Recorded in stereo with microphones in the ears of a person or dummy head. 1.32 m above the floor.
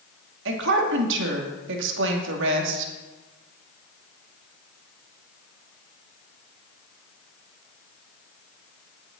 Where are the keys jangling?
No keys jangling in this recording.